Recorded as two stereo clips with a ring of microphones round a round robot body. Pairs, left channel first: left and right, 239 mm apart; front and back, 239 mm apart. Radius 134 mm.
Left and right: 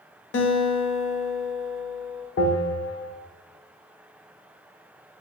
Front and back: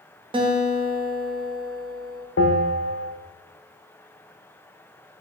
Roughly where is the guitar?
Behind left.